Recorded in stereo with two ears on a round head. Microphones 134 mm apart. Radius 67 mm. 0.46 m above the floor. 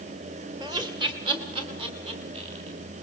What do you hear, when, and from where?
0.6 s laughter: 30° right (ahead or behind), 2.0 m; by 2.8 s 40° right (ahead or behind), 4.5 m